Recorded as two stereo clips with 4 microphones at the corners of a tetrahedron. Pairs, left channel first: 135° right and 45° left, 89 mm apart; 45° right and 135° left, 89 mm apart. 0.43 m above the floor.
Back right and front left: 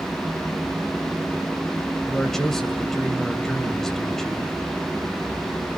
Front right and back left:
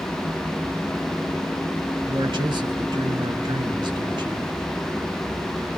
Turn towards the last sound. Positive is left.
turn(degrees=140)